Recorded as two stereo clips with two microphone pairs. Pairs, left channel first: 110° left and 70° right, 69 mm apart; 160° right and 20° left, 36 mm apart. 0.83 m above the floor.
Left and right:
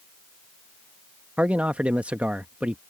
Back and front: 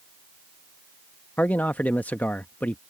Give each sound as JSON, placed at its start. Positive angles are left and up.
{"t": 1.4, "sound": "a man speaking", "azimuth_deg": -135}